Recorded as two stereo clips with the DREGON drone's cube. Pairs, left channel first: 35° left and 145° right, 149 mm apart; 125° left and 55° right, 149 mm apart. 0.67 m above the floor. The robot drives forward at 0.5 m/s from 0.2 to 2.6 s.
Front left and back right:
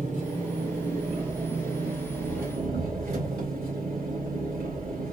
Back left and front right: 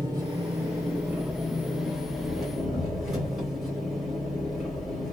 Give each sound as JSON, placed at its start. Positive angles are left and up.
{"t": 0.0, "sound": "an engine running", "azimuth_deg": -120, "distance_m": 1.7}